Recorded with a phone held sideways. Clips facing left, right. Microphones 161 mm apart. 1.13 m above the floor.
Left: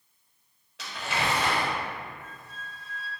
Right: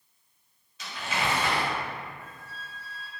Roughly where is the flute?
Centre.